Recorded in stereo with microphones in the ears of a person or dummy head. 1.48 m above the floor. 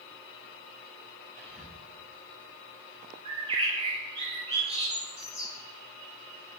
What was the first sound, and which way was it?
Whispering, 85° right.